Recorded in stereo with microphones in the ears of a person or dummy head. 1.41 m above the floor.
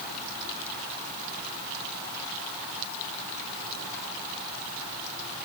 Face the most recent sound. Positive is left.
No sound to turn to.